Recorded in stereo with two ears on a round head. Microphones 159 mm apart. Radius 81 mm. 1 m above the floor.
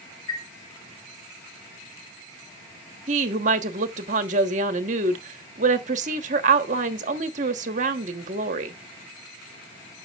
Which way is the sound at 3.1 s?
40° right (ahead or behind).